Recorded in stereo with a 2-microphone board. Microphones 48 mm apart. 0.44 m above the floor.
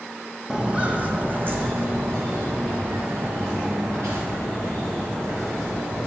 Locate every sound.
0.5 s footsteps: 15° right (ahead or behind), 0.7 m; by 6.1 s 75° right (ahead or behind), 3.5 m